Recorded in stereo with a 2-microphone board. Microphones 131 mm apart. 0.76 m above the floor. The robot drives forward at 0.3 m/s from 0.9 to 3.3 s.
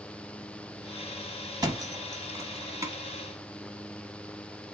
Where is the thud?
30° right (ahead or behind), 0.9 m; by 2.9 s 25° right (ahead or behind), 1.2 m.